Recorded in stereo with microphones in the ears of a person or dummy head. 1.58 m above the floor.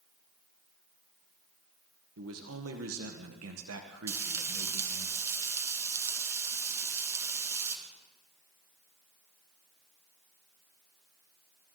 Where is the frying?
20° right (ahead or behind), 2.5 m.